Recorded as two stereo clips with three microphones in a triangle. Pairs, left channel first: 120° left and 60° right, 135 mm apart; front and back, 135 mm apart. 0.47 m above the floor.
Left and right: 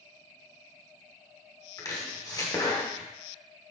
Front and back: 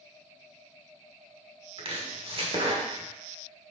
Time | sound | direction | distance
1.8 | chopping | 170° left | 1.5 m